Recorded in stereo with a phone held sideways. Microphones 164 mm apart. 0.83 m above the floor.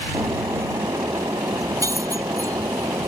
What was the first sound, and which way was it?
Breaking glass, 20° right (ahead or behind).